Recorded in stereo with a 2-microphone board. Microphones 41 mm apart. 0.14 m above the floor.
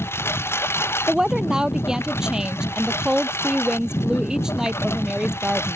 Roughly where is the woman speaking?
Centre.